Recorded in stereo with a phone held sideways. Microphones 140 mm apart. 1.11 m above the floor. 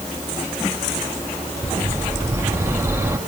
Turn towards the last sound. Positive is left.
turn(degrees=-20)  # may be behind; listen again after turning